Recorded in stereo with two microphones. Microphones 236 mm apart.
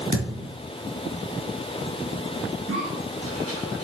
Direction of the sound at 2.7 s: 75° right (ahead or behind).